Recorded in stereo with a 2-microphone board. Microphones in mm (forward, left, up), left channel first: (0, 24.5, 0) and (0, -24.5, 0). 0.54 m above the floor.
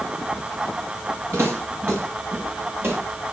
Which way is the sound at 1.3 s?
60° right (ahead or behind).